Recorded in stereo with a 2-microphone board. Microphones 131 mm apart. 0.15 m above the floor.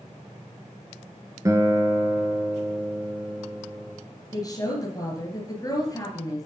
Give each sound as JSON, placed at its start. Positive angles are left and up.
{"t": 1.4, "sound": "a guitar", "side_deg": -25, "distance_m": 1.0}
{"t": 4.3, "sound": "a woman speaking", "side_deg": 30, "distance_m": 1.9}